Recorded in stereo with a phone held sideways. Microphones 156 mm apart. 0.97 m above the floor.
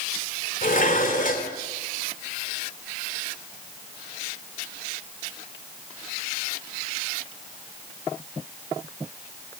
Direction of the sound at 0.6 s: 60° left (ahead or behind).